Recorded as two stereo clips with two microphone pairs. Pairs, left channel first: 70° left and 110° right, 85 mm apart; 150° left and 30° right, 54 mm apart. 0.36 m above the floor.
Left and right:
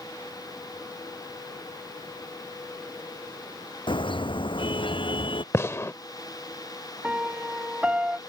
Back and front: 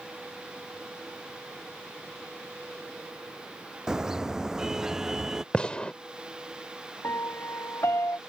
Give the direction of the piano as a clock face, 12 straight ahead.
6 o'clock.